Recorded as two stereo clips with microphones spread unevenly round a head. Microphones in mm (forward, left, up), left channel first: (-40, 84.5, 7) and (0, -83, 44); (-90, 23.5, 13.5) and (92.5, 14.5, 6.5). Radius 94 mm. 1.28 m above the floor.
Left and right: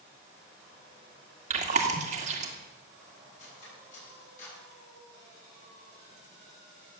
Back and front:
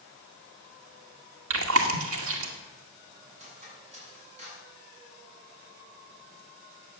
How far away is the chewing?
About 2 m.